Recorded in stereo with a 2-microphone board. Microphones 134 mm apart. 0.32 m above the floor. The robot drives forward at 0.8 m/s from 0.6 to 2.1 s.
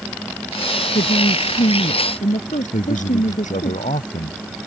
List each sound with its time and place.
0.9 s a woman speaking: 75° left (ahead or behind); by 3.7 s 70° left (ahead or behind)
2.7 s a man speaking: 70° left (ahead or behind)